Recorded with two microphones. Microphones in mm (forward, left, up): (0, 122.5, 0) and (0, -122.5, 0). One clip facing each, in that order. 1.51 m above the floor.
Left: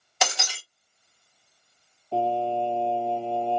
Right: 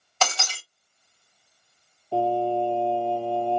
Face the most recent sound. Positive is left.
turn(degrees=-5)  # may be behind; listen again after turning